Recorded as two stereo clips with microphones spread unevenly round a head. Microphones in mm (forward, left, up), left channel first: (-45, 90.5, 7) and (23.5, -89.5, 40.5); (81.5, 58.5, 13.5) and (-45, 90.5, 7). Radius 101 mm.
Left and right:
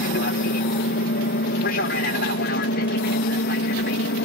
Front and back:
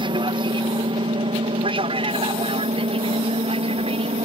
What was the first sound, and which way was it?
An aircraft, 125° left.